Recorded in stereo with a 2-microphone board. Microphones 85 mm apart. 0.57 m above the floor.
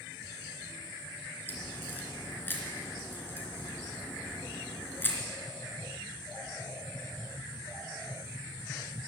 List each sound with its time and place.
1.5 s a crack: 25° left (ahead or behind), 3 m